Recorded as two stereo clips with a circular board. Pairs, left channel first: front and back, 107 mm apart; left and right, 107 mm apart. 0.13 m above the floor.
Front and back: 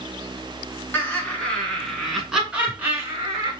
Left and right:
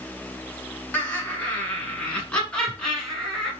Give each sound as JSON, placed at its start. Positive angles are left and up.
{"t": 0.9, "sound": "laughter", "azimuth_deg": 45, "distance_m": 1.5}